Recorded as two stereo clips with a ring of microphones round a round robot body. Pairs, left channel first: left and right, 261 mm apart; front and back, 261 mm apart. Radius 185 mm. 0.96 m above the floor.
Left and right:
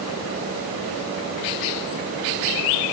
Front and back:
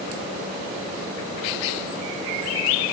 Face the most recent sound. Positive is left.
No sound to turn to.